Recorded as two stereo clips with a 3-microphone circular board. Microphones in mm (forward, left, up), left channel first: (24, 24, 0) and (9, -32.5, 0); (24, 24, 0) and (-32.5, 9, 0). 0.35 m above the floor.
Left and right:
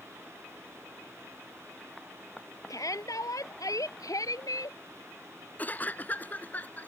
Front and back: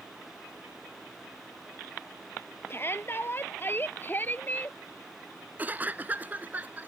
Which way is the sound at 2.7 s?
65° left.